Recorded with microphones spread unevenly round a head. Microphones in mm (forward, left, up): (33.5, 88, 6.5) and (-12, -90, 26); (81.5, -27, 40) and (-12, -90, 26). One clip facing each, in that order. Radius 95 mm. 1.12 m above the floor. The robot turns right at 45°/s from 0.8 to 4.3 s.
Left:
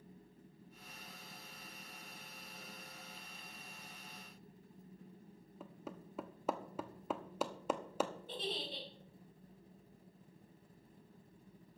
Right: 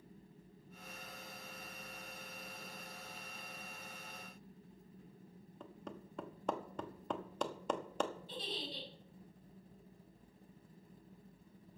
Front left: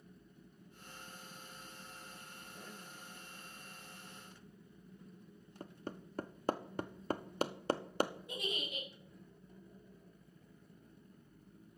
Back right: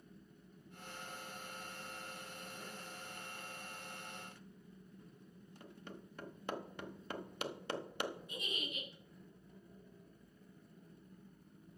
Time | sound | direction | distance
5.6 | hammering | 10° right | 0.8 m
8.3 | a giggle | 35° left | 5 m